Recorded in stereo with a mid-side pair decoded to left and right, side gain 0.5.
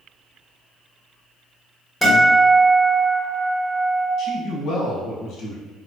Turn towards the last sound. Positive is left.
turn(degrees=65)